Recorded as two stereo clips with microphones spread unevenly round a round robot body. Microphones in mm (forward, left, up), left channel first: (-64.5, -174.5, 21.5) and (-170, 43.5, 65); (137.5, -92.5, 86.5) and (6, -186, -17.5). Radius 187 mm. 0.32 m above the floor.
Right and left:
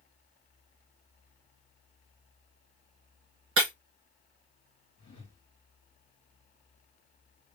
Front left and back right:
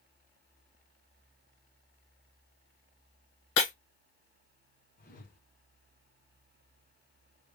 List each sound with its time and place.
3.6 s breaking glass: 65° left, 1.1 m
5.0 s a whoosh: 10° right, 2.5 m